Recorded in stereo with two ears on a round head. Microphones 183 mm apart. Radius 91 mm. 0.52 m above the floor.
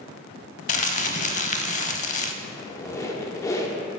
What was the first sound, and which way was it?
Crumpling, 35° left (ahead or behind).